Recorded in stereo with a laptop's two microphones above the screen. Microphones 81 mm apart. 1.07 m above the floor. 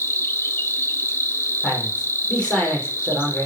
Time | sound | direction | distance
0.0 | an insect | 30° left (ahead or behind) | 1.2 m
1.6 | a man speaking | 10° left (ahead or behind) | 4.5 m